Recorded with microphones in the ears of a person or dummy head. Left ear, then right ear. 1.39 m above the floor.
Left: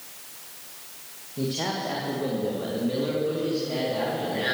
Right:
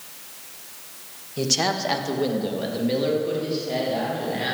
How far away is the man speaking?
About 1.6 m.